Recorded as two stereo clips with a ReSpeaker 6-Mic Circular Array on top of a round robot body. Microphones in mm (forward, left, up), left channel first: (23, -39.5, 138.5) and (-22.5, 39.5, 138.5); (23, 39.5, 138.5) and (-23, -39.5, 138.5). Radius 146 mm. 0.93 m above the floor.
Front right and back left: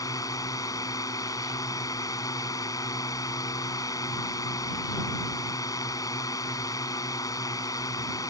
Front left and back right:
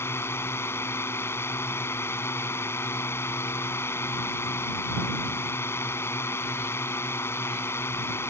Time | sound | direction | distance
0.0 | a drone | 5° right | ?